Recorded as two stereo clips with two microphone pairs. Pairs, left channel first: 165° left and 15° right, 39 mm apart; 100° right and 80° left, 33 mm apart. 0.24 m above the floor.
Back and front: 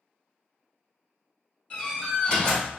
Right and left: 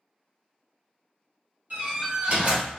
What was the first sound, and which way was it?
A door slam, 95° left.